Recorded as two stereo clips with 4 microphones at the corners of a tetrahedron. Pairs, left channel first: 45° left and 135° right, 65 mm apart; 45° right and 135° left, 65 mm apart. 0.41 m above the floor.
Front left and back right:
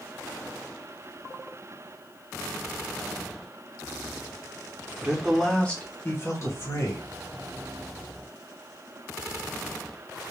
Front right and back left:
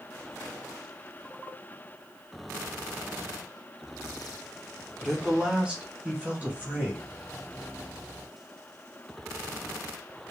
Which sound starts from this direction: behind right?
A man speaking, at 5.0 s.